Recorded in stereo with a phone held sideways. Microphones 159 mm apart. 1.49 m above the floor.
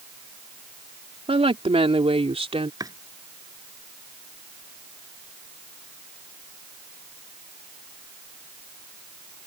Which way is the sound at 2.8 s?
25° right (ahead or behind).